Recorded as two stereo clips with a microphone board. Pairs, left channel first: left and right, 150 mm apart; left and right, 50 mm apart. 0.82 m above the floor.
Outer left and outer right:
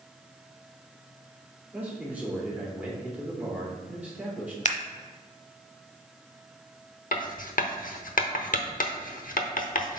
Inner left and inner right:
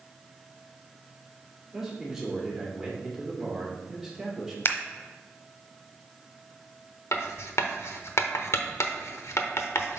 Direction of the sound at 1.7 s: 10° right (ahead or behind).